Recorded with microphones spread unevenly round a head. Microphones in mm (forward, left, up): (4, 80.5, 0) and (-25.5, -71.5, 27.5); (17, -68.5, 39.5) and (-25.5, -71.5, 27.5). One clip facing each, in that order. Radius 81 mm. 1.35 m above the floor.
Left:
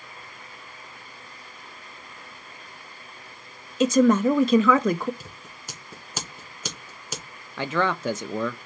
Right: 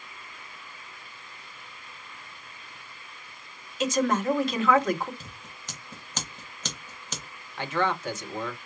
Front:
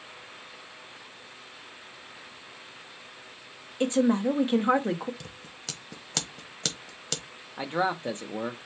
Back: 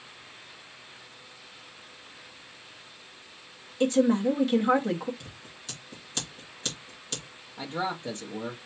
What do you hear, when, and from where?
3.8 s a woman speaking: 80° left, 0.6 m
5.2 s scissors: straight ahead, 1.2 m
7.6 s a man speaking: 75° left, 0.5 m